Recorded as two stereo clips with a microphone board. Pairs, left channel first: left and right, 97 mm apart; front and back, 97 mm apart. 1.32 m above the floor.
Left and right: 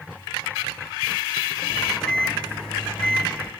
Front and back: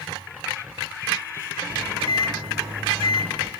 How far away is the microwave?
About 0.8 m.